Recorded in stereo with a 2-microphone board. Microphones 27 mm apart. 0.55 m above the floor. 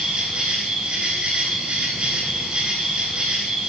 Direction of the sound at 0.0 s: 45° right (ahead or behind).